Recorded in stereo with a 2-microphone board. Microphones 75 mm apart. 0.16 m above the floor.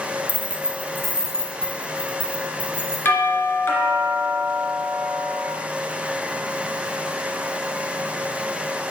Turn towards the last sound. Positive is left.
turn(degrees=25)  # may be behind; listen again after turning